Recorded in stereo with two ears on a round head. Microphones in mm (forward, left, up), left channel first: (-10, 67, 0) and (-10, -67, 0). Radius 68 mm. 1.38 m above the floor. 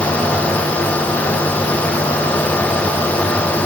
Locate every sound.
Only background noise.